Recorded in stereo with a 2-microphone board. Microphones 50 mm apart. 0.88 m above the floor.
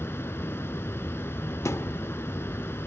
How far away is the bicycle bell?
I don't hear a bicycle bell.